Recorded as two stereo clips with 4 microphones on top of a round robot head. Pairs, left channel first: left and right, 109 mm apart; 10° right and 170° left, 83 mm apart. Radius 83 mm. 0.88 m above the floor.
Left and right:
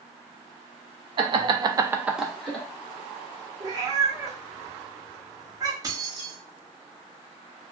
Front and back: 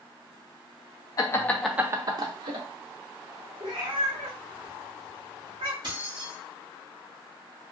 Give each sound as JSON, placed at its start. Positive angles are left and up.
{"t": 1.2, "sound": "laughter", "azimuth_deg": -55, "distance_m": 0.7}
{"t": 3.6, "sound": "a cat meowing", "azimuth_deg": -145, "distance_m": 0.8}
{"t": 5.8, "sound": "keys jangling", "azimuth_deg": -150, "distance_m": 1.0}